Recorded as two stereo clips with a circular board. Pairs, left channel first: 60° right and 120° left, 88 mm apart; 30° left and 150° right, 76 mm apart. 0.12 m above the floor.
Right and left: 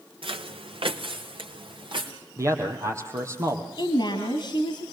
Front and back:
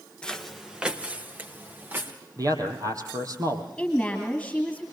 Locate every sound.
0.2 s footsteps: 105° left, 1.1 m; by 2.1 s 145° left, 3.5 m
2.4 s a man speaking: 175° left, 3.5 m
3.8 s a woman speaking: 55° right, 2 m